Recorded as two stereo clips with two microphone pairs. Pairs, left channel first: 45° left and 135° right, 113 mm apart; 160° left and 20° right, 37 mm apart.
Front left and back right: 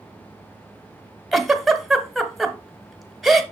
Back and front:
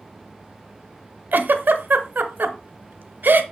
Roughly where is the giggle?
Ahead right.